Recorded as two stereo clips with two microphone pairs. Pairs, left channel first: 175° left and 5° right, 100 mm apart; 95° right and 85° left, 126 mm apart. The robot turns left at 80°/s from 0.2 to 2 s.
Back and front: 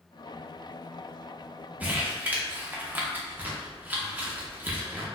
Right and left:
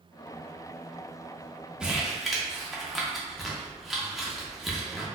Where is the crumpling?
20° left, 0.7 m; by 5.1 s 5° left, 0.7 m.